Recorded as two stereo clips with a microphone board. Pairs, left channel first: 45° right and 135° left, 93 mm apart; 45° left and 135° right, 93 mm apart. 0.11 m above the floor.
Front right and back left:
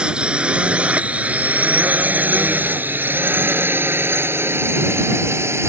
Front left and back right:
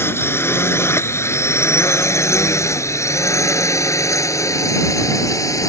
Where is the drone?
65° left; by 5.7 s 85° left.